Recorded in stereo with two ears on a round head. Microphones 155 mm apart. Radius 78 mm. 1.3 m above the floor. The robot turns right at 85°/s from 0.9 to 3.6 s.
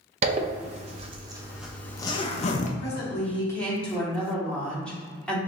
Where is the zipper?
40° right (ahead or behind), 0.5 m; by 2.7 s 45° left (ahead or behind), 0.5 m.